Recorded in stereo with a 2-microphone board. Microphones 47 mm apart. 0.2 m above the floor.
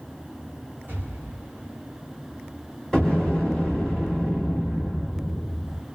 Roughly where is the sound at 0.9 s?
Right.